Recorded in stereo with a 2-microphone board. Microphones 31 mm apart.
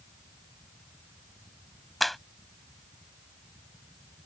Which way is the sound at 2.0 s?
10° left (ahead or behind).